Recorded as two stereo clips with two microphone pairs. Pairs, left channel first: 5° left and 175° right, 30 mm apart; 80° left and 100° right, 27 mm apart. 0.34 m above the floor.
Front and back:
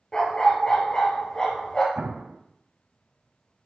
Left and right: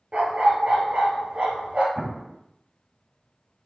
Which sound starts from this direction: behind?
An explosion, at 1.9 s.